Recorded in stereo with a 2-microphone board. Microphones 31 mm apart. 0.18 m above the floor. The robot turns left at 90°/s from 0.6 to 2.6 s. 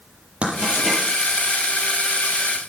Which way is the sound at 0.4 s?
35° right (ahead or behind).